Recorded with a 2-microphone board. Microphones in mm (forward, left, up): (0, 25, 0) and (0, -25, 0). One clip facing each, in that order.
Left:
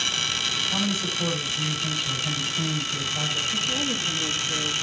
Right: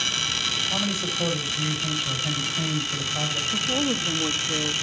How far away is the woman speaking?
About 1.6 m.